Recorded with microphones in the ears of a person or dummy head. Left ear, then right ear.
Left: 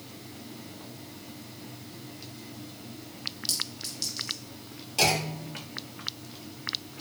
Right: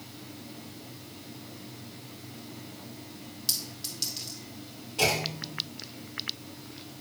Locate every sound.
3.5 s a clink: 5° right (ahead or behind), 1.8 m
5.0 s a clunk: 50° left (ahead or behind), 4 m